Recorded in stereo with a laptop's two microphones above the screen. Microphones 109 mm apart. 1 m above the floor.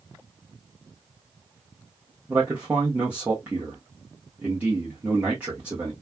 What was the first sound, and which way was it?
A man speaking, 15° right (ahead or behind).